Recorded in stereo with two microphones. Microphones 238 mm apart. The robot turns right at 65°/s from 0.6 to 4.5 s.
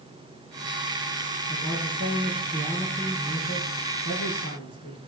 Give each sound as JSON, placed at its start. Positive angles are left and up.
{"t": 1.5, "sound": "a man speaking", "azimuth_deg": -95, "distance_m": 4.0}